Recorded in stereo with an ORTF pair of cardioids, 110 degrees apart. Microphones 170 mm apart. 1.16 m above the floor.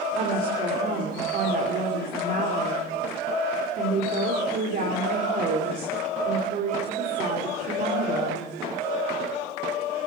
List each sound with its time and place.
0.1 s a woman speaking: 50° right, 3 m